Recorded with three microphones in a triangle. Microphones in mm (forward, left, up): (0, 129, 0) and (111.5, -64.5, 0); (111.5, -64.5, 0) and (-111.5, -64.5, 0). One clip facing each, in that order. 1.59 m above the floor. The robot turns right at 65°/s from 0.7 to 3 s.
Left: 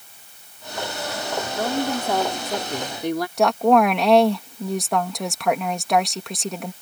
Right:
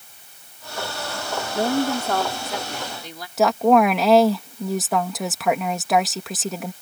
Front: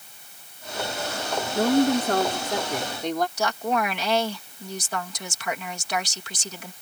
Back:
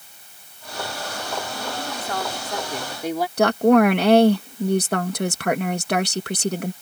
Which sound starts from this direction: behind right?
A woman speaking, at 3.4 s.